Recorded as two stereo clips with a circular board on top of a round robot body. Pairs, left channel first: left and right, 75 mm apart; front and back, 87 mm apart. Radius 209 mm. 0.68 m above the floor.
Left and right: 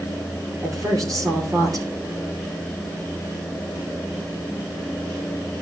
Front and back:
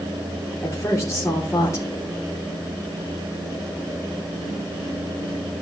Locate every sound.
0.6 s a woman speaking: 55° right, 3 m